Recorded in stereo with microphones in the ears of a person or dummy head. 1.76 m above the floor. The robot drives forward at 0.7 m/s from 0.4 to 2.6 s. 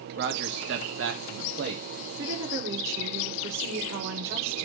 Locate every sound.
0.2 s a man speaking: 70° right (ahead or behind), 1.1 m; by 1.8 s 60° right (ahead or behind), 1.2 m
2.2 s a woman speaking: 80° right, 1.9 m; by 4.7 s 70° right (ahead or behind), 2.0 m